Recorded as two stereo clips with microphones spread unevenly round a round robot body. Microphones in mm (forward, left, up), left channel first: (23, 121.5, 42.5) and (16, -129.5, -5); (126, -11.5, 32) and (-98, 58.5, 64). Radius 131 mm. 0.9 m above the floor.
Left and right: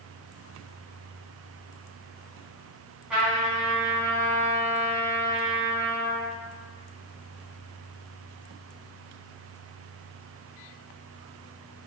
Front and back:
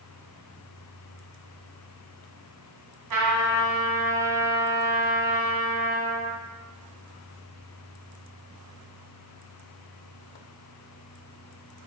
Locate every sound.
3.1 s a trumpet: straight behind, 3.5 m